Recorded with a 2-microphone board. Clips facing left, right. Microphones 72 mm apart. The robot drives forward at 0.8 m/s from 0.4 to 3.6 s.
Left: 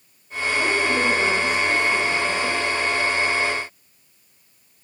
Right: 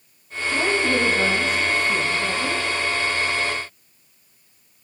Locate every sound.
0.5 s a woman speaking: 85° right, 2.0 m; by 2.6 s 50° right (ahead or behind), 2.5 m